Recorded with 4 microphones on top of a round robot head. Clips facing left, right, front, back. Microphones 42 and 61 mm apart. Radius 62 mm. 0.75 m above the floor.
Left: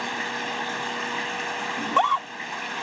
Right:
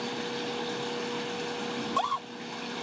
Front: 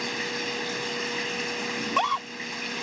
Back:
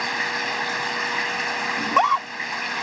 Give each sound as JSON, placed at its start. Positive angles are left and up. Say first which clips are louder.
{"t": 0.0, "sound": "running water", "louder": "left 5 dB, back 6 dB", "azimuth_deg": 135}
{"t": 1.8, "sound": "a scream", "louder": "left 9 dB, back 7 dB", "azimuth_deg": 125}